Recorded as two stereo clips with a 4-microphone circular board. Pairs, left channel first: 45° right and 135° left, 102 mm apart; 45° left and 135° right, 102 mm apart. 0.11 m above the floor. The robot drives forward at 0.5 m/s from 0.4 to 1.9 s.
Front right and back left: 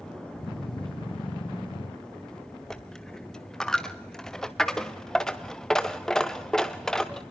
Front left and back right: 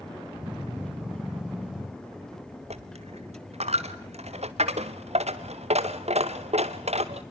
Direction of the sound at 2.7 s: 130° right.